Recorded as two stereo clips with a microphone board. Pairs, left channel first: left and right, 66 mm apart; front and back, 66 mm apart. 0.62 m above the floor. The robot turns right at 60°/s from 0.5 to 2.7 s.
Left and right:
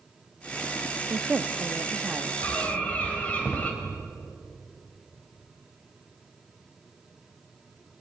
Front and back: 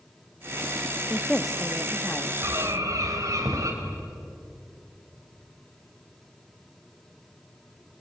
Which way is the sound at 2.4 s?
140° left.